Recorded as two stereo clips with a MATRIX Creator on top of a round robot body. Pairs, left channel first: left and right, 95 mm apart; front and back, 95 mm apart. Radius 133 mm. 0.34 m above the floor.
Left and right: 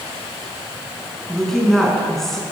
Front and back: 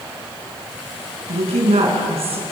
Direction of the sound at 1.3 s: 175° left.